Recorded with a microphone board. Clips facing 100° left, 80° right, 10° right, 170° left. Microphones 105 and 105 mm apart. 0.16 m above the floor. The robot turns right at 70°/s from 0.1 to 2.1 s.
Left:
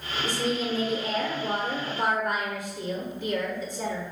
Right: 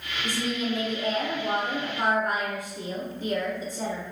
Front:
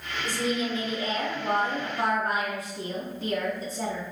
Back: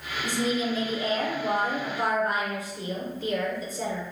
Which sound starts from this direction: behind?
A woman speaking, at 0.2 s.